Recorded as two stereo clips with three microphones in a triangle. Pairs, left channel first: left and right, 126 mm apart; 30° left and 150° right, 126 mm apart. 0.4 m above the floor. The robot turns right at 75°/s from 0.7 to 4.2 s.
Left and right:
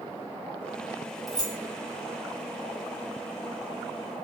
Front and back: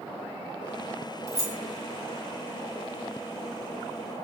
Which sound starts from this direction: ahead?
Keys jangling, at 1.3 s.